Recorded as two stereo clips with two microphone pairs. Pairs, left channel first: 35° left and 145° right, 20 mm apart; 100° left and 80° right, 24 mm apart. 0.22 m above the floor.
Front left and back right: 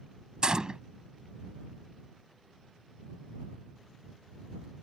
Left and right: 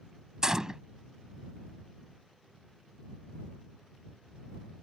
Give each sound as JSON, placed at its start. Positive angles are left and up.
{"t": 0.4, "sound": "a gunshot", "azimuth_deg": -130}